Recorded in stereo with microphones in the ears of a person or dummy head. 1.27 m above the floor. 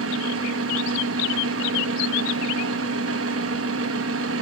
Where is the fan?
80° right, 2.5 m.